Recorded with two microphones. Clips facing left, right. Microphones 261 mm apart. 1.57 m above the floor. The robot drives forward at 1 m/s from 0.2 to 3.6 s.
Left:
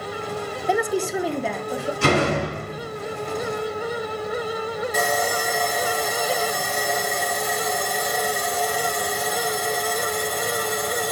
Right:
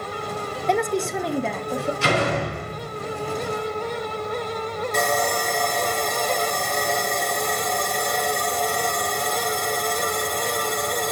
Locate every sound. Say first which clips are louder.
0.7 s a woman speaking: even; 5° left (ahead or behind), 0.7 m
2.0 s a door slam: left 5 dB; 55° left (ahead or behind), 2.5 m; by 2.9 s 40° left (ahead or behind), 3.5 m
4.9 s sawing: right 2 dB; 5° left (ahead or behind), 1.6 m